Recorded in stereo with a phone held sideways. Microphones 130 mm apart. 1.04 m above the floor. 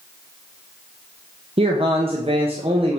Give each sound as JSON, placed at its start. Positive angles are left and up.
{"t": 1.6, "sound": "a man speaking", "side_deg": -50, "distance_m": 1.0}